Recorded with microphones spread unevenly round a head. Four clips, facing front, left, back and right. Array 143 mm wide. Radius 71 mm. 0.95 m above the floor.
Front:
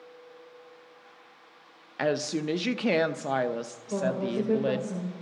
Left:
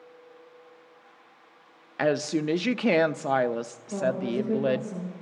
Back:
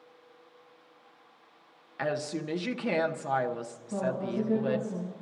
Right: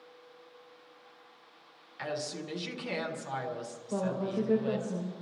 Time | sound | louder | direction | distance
2.0 | a woman speaking | left 12 dB, front 4 dB | 70° left | 0.7 m
3.9 | a woman speaking | left 5 dB, front 3 dB | 25° right | 4.5 m